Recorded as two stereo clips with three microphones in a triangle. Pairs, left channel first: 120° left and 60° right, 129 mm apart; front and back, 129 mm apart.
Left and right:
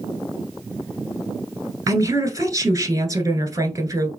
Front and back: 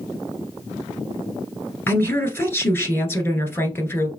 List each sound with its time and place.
1.9 s a woman speaking: 50° right, 1.3 m